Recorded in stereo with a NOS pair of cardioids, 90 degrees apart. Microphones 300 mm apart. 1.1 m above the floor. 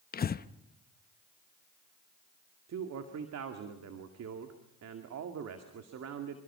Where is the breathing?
30° left, 0.9 m.